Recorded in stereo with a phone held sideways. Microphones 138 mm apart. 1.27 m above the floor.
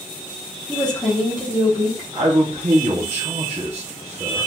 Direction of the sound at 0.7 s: 30° left (ahead or behind).